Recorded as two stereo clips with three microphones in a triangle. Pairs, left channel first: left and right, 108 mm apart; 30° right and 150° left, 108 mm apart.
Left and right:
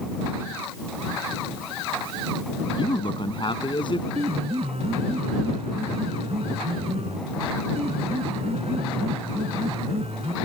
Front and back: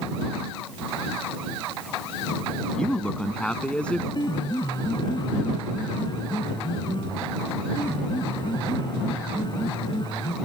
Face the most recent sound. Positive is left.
turn(degrees=-75)